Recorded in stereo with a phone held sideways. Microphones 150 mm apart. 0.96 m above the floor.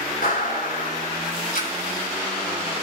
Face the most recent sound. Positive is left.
turn(degrees=65)  # may be behind; listen again after turning